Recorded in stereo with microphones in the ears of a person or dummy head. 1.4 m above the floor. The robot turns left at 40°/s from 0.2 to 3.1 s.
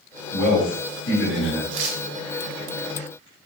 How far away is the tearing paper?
About 0.6 m.